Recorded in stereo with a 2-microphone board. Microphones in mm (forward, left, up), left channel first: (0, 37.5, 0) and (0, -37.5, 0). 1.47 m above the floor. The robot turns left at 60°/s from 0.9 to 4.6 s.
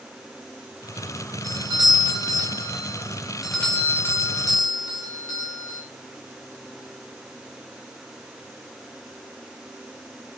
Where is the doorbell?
55° right, 4 m; by 5.8 s 115° left, 4 m.